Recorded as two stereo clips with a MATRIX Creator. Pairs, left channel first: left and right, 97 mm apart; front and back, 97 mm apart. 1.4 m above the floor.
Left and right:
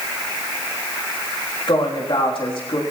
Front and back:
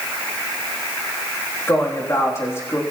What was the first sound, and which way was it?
A woman speaking, 65° left.